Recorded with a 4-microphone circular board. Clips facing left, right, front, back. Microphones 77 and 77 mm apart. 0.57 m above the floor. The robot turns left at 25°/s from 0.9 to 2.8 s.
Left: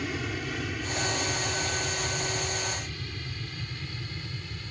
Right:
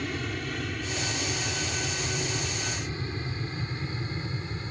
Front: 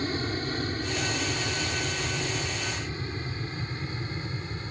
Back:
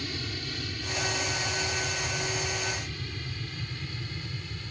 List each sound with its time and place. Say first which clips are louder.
0.0 s an aircraft: even, front 7 dB; 5° left; by 4.7 s 40° right